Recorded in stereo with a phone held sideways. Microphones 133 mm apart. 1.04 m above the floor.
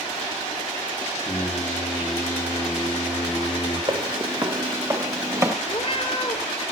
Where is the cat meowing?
45° left (ahead or behind), 2 m.